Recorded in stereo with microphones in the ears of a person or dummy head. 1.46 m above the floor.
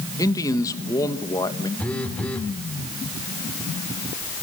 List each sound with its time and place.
0.2 s a man speaking: 20° left (ahead or behind), 1.1 m
1.8 s a phone buzzing: 10° left (ahead or behind), 2 m